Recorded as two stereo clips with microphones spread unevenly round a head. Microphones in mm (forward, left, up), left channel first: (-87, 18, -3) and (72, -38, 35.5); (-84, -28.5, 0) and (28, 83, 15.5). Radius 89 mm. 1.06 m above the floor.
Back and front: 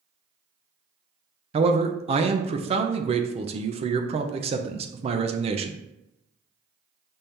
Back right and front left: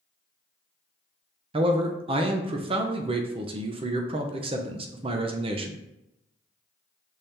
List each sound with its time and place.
1.5 s a man speaking: 25° left, 0.5 m